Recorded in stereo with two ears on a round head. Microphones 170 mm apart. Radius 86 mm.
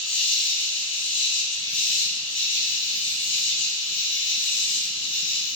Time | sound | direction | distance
0.0 | an insect | 70° left (ahead or behind) | 0.8 m